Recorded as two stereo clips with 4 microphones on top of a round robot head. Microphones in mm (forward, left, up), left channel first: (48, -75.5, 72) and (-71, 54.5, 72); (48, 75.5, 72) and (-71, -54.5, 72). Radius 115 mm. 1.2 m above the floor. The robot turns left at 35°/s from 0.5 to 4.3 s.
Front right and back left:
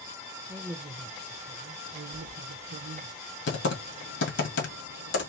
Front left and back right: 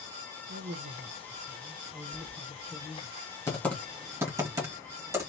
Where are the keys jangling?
125° left, 1.0 m; by 2.4 s 115° left, 1.0 m.